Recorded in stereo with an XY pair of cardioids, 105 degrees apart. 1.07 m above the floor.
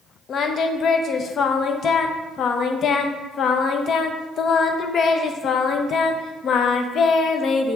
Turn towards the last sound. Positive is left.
turn(degrees=55)